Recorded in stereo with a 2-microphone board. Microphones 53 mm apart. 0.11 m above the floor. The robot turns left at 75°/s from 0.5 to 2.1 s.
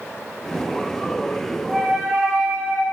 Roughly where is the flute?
Ahead.